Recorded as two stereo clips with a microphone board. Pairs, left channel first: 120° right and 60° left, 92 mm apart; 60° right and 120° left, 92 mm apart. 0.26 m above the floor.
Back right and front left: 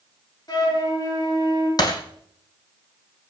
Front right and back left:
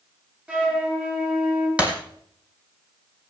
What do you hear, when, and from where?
0.5 s a flute: 165° right, 5 m
1.8 s breaking glass: 165° right, 2.5 m